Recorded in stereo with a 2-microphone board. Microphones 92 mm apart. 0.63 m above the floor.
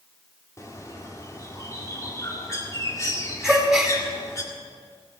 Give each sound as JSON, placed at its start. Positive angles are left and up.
{"t": 0.6, "sound": "a bird", "side_deg": 35, "distance_m": 1.9}
{"t": 3.4, "sound": "a gasp", "side_deg": -5, "distance_m": 1.9}